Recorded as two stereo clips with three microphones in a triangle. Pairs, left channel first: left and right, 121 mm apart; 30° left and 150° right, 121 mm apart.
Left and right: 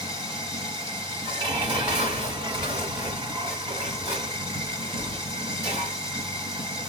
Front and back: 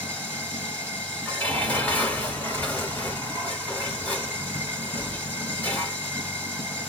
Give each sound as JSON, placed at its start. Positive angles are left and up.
{"t": 0.0, "sound": "running water", "azimuth_deg": -40, "distance_m": 2.5}
{"t": 1.2, "sound": "dishes clattering", "azimuth_deg": -45, "distance_m": 2.5}